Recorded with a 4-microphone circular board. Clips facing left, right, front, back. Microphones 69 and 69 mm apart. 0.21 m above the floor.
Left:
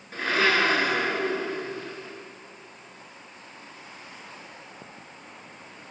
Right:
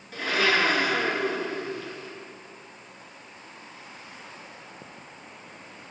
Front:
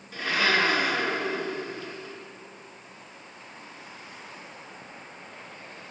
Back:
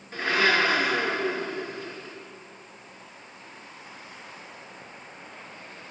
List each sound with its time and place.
0.1 s a blender: 135° left, 3 m